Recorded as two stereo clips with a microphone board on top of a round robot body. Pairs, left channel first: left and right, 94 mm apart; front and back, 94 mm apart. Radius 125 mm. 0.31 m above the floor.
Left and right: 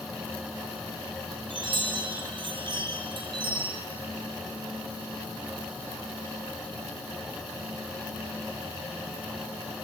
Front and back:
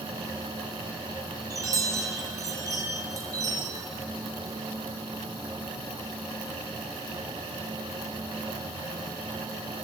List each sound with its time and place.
1.5 s a chime: 125° right, 4 m